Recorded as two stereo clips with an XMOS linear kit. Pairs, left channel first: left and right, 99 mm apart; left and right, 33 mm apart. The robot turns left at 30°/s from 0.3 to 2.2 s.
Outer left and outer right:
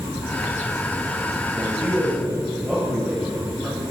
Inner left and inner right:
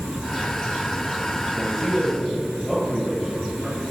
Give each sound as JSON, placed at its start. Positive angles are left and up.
{"t": 1.5, "sound": "a man speaking", "side_deg": -30, "distance_m": 7.5}